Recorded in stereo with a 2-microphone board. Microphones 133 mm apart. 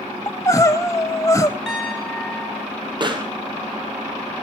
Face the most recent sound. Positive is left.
turn(degrees=-35)  # may be behind; listen again after turning